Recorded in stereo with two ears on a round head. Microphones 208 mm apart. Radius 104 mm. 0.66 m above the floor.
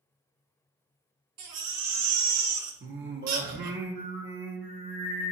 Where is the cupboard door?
No cupboard door in this recording.